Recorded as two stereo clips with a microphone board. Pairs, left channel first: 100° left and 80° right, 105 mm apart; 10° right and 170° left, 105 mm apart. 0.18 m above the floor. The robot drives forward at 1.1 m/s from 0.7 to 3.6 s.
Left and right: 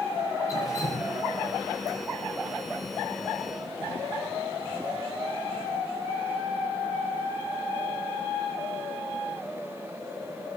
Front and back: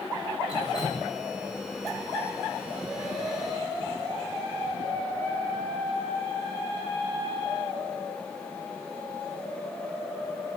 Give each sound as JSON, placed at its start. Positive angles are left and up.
{"t": 0.5, "sound": "dripping", "azimuth_deg": 40, "distance_m": 7.5}